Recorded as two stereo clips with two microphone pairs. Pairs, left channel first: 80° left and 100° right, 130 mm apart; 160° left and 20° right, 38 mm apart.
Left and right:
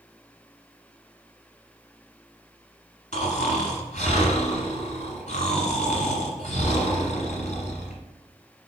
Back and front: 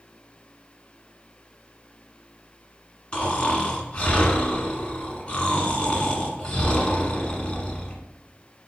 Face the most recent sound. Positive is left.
turn(degrees=100)